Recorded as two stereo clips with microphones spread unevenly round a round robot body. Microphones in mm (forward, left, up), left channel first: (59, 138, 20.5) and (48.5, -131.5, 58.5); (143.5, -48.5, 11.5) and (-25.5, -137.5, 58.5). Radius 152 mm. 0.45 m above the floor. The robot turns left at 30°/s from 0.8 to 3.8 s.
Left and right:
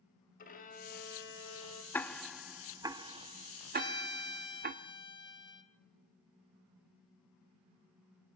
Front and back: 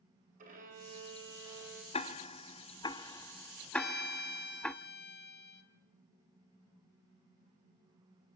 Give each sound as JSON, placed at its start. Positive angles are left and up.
{"t": 0.4, "sound": "a violin", "azimuth_deg": 145, "distance_m": 2.0}
{"t": 1.9, "sound": "ticking", "azimuth_deg": 15, "distance_m": 0.9}
{"t": 3.7, "sound": "a violin", "azimuth_deg": 20, "distance_m": 1.9}